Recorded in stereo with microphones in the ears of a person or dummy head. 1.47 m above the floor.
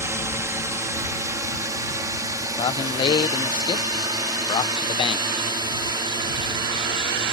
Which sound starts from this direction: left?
A man speaking, at 2.6 s.